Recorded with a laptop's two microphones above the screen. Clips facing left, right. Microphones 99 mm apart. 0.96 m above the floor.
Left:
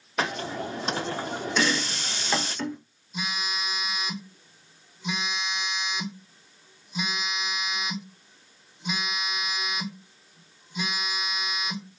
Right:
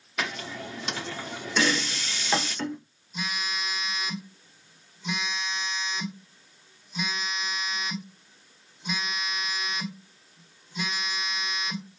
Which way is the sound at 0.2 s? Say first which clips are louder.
Left 5 dB; 40° left (ahead or behind).